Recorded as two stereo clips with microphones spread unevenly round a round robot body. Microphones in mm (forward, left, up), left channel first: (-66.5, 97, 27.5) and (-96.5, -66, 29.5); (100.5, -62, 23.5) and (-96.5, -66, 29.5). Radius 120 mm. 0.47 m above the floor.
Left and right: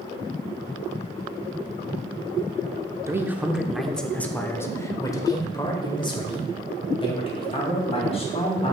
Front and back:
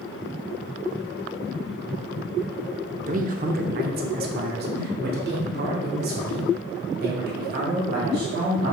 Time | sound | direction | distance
3.1 | a man speaking | 165° right | 1.0 m